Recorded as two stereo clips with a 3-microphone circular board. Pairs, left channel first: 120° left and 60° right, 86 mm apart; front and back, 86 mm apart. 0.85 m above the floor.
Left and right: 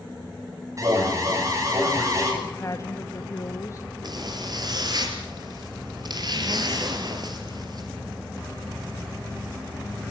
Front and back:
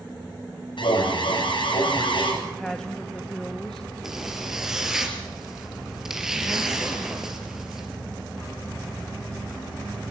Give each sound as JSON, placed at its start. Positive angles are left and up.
{"t": 0.8, "sound": "an alarm", "azimuth_deg": -10, "distance_m": 7.5}
{"t": 2.4, "sound": "a woman speaking", "azimuth_deg": 80, "distance_m": 1.3}
{"t": 4.0, "sound": "a zipper", "azimuth_deg": -95, "distance_m": 4.0}